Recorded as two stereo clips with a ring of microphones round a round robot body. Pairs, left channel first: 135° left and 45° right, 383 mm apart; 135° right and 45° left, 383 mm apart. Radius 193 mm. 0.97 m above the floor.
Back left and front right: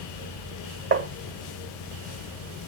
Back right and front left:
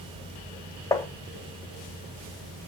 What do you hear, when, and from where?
0.9 s tapping: 60° right, 0.8 m